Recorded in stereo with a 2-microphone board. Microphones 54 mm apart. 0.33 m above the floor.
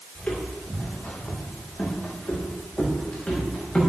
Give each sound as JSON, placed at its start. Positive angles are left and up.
{"t": 0.1, "sound": "footsteps", "side_deg": 25, "distance_m": 8.0}